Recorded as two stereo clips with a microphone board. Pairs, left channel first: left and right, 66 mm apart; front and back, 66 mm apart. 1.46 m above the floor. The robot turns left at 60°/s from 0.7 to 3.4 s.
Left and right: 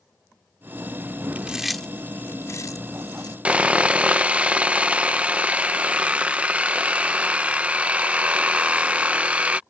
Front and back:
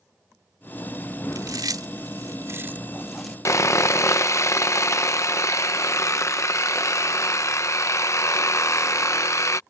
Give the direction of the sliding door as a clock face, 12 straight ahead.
I don't hear a sliding door.